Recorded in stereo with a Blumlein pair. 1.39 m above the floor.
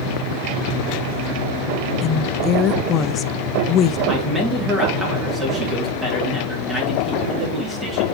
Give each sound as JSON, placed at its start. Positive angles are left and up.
{"t": 2.0, "sound": "a woman speaking", "azimuth_deg": 25, "distance_m": 0.6}
{"t": 4.1, "sound": "a man speaking", "azimuth_deg": -15, "distance_m": 3.0}